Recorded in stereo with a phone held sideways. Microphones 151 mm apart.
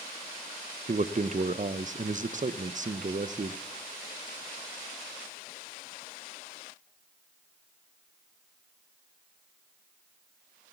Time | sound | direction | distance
0.9 | a man speaking | 55° right (ahead or behind) | 0.5 m